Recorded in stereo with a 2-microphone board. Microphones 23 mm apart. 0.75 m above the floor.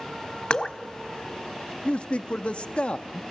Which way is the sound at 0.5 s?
45° left (ahead or behind).